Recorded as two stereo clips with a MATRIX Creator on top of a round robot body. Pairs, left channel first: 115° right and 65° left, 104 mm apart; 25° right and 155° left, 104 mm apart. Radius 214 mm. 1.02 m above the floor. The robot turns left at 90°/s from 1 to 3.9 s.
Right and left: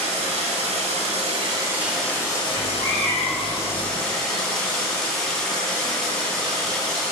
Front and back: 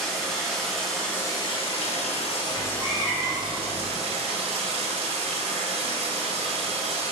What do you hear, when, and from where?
0.0 s running water: 65° left, 1.5 m; by 7.1 s 165° left, 1.5 m
2.5 s a cat meowing: 110° right, 1.6 m; by 4.0 s 125° left, 1.6 m